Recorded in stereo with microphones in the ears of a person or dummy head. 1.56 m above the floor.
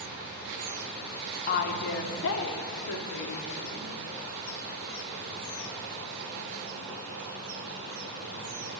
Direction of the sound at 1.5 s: 45° left (ahead or behind).